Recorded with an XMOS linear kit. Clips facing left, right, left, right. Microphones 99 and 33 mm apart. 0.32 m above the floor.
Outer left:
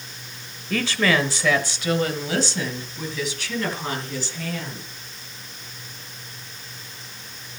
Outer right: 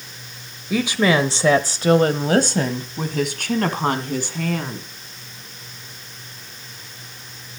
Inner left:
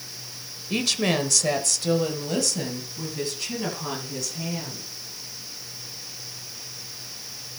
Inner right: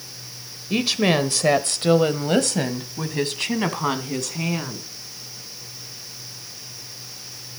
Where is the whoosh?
I don't hear a whoosh.